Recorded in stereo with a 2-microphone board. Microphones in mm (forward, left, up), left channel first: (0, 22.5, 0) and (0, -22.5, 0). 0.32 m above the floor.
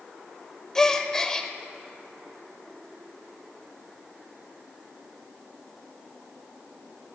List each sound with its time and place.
0.8 s a gasp: 10° left (ahead or behind), 0.7 m